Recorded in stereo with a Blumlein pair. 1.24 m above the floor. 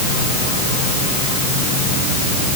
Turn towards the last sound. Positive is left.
No sound to turn to.